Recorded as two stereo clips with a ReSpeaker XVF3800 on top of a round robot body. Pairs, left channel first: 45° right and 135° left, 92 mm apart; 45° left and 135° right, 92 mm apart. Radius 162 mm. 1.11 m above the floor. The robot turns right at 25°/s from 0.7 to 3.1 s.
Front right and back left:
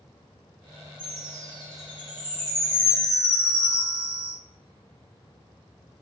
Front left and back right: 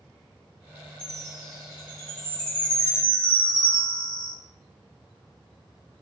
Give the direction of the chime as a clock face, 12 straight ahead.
1 o'clock.